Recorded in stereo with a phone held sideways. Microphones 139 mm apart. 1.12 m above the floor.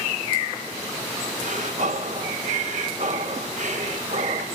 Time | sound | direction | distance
1.4 | breathing | 65° right (ahead or behind) | 1.3 m